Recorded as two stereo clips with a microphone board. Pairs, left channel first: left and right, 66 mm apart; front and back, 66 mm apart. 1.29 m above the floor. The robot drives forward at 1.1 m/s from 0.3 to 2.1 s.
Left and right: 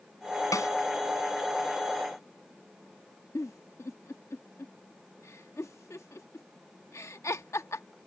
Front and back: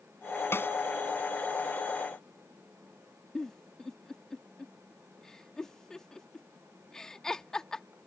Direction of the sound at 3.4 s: 75° left.